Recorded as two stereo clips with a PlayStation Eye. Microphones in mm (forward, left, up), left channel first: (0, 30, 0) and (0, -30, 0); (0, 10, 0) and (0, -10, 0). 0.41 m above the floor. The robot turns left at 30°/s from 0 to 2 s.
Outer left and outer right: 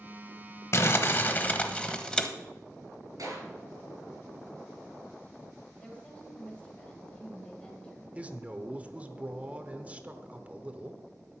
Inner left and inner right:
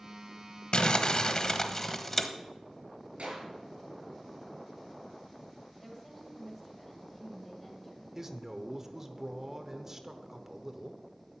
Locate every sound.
0.7 s crumpling: 50° left, 1.1 m; by 2.3 s 15° left, 1.1 m
3.2 s a clap: 70° right (ahead or behind), 6 m
5.8 s a woman speaking: 20° left (ahead or behind), 2.5 m
8.2 s a man speaking: 25° right (ahead or behind), 1.0 m